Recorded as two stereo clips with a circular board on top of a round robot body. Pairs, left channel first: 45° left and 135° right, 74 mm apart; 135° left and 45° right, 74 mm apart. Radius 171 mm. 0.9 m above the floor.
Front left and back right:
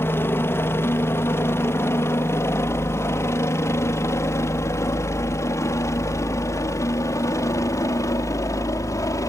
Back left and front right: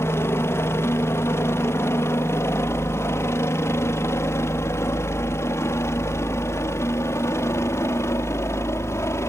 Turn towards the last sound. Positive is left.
turn(degrees=85)